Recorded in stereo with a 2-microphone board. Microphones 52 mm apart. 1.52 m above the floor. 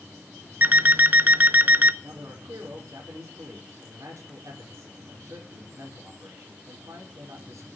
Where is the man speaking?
80° right, 4.5 m.